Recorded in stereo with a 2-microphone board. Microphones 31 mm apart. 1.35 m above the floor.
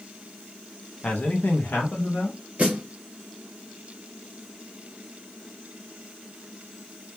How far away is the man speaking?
About 0.6 m.